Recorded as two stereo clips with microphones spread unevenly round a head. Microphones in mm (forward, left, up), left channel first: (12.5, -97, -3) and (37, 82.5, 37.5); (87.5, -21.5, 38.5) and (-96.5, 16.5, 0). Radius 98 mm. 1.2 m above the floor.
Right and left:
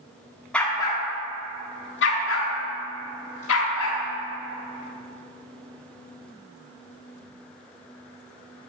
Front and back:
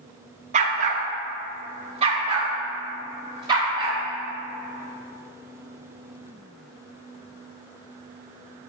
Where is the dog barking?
150° left, 0.7 m; by 4.0 s 115° right, 2.0 m.